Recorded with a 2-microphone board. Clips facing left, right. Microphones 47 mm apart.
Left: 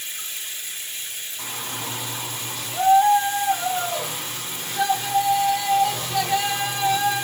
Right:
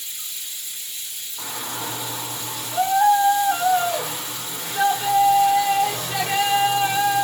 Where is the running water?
50° left (ahead or behind), 1.3 m.